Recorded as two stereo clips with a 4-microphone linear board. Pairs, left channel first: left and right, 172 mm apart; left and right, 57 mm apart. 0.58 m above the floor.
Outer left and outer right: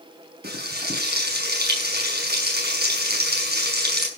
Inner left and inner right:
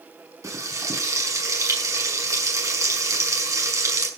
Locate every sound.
0.4 s frying: 65° right (ahead or behind), 5.5 m